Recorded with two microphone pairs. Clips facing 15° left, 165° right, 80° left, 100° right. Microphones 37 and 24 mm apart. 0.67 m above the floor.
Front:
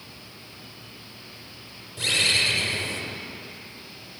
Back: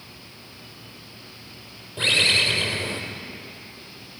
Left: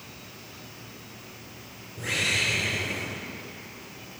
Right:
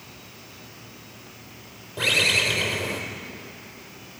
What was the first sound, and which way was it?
A bird, 105° right.